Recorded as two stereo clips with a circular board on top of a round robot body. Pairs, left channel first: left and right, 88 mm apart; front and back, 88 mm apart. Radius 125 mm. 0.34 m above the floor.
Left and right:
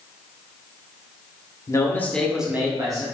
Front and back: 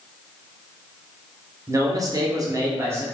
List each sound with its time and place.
1.7 s a man speaking: 135° left, 1.4 m; by 3.0 s 125° right, 1.4 m